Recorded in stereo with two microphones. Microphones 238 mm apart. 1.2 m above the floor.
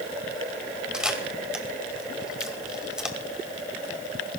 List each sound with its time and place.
0.9 s a camera shutter: 5° right (ahead or behind), 1.9 m